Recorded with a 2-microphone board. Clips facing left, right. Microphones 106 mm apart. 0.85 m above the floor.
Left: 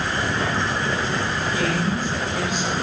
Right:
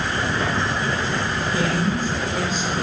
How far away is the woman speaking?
About 4 m.